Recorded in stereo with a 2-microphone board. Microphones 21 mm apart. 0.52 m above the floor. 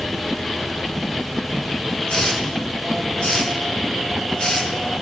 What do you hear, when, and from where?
2.1 s a hiss: 65° left (ahead or behind), 3 m